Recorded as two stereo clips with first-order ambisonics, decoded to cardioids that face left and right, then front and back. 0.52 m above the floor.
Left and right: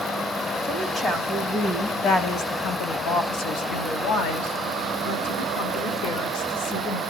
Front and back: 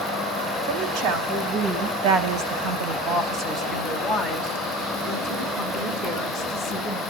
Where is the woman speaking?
165° left, 4 m; by 7.0 s 75° left, 6 m.